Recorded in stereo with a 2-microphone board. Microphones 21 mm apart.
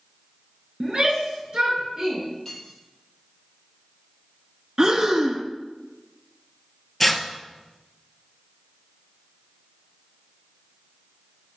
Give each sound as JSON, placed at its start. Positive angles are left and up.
{"t": 0.8, "sound": "a shout", "side_deg": -45, "distance_m": 3.0}
{"t": 2.5, "sound": "cutlery clinking", "side_deg": 20, "distance_m": 3.0}
{"t": 4.8, "sound": "breathing", "side_deg": -35, "distance_m": 0.7}
{"t": 7.0, "sound": "tearing paper", "side_deg": 15, "distance_m": 0.7}